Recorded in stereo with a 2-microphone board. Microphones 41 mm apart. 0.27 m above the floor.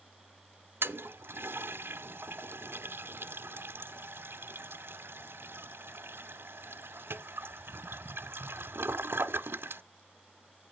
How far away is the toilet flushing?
About 0.6 m.